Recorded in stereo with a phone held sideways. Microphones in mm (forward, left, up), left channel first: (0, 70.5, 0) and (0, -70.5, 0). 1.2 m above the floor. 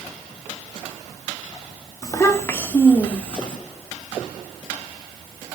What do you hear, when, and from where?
2.0 s a child speaking: 25° left (ahead or behind), 1.7 m; by 3.6 s 5° left (ahead or behind), 3 m